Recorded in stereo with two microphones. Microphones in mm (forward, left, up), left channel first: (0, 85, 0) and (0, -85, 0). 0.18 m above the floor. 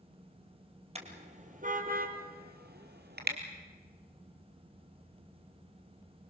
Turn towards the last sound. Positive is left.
turn(degrees=-75)  # may be behind; listen again after turning